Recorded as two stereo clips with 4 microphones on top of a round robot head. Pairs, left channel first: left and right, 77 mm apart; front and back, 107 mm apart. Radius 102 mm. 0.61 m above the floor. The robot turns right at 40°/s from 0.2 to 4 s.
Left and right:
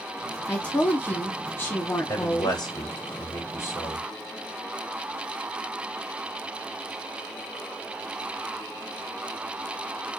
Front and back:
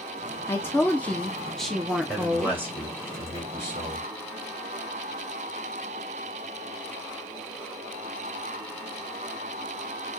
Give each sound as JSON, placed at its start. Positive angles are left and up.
{"t": 0.5, "sound": "a woman speaking", "azimuth_deg": 35, "distance_m": 0.7}
{"t": 2.1, "sound": "a man speaking", "azimuth_deg": 85, "distance_m": 3.0}